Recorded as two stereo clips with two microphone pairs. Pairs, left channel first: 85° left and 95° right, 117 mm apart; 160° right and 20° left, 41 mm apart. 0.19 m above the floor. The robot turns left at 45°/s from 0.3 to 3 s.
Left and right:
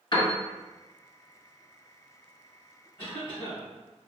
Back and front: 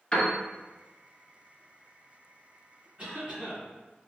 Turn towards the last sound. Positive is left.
turn(degrees=50)